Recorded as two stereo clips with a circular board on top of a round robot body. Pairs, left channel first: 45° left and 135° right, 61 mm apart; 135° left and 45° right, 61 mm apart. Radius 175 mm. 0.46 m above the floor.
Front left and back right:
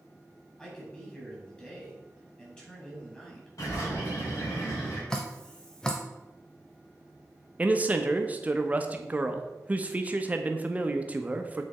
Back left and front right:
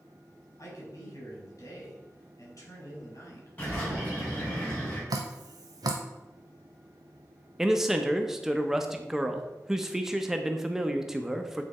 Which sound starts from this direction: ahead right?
Dripping, at 5.1 s.